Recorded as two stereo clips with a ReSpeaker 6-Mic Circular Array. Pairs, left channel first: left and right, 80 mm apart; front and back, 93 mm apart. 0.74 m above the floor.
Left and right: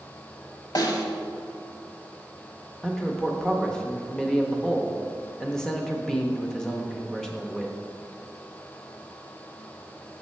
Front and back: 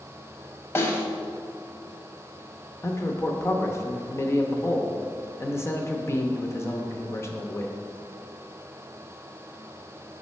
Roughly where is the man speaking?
Ahead.